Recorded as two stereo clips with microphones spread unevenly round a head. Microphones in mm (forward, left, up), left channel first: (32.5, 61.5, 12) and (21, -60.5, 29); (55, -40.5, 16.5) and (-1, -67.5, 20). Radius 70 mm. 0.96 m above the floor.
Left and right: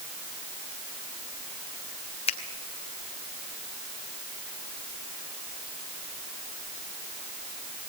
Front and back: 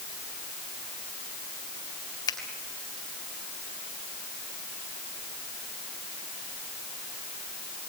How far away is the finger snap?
About 3.5 m.